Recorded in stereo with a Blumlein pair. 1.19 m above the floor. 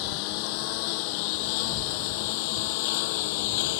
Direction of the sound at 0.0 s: 45° left.